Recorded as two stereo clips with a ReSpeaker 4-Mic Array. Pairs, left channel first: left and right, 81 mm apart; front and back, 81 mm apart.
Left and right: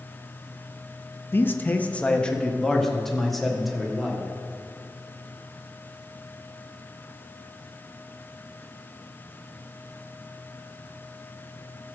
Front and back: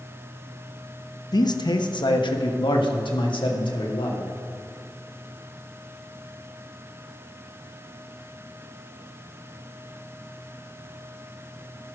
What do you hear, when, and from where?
1.3 s a man speaking: 30° left, 0.9 m; by 4.2 s 5° right, 2.5 m